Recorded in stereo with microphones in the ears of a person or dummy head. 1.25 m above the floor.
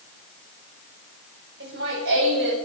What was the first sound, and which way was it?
Laughter, 70° right (ahead or behind).